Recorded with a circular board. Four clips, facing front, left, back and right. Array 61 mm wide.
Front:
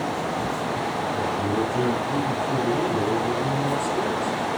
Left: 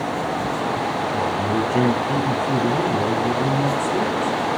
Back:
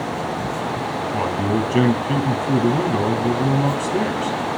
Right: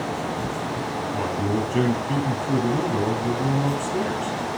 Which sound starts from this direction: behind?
A man speaking, at 1.1 s.